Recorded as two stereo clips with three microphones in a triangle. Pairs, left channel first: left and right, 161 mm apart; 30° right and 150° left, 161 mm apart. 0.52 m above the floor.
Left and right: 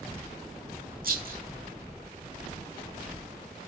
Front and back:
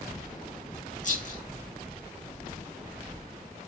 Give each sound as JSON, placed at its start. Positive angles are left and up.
{"t": 1.0, "sound": "a rattle", "azimuth_deg": -70, "distance_m": 5.0}